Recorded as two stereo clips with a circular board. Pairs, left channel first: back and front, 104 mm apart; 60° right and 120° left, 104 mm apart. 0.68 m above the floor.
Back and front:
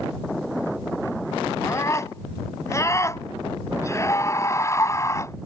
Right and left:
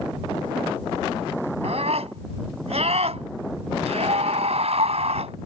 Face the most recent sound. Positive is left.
turn(degrees=120)